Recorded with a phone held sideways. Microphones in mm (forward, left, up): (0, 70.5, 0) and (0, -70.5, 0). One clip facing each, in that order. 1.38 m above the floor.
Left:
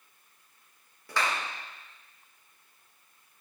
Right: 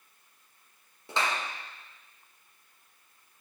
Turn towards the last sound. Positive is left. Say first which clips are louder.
# even
turn(degrees=-20)  # may be behind; listen again after turning